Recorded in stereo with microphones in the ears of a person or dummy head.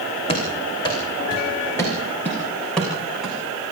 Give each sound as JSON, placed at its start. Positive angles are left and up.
{"t": 0.3, "sound": "running footsteps", "side_deg": 30, "distance_m": 4.0}